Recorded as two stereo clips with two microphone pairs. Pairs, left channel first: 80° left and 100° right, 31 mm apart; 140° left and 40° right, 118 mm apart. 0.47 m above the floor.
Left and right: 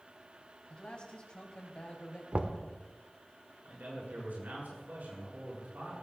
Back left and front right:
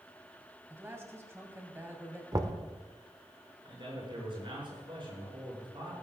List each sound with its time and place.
0.7 s a man speaking: 25° left, 2.5 m
2.3 s knocking: 85° right, 1.0 m
3.6 s a man speaking: 85° right, 7.5 m